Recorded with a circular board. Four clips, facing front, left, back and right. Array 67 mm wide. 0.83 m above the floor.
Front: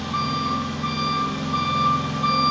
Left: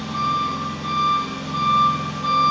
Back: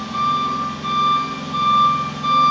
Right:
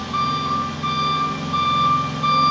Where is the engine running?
65° right, 0.9 m.